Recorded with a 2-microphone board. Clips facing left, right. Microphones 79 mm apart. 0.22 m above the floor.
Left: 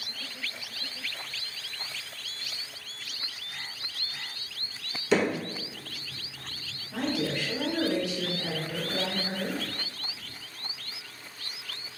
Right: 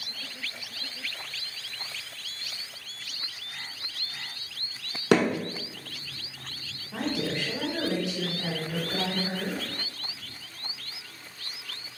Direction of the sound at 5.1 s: 70° right (ahead or behind).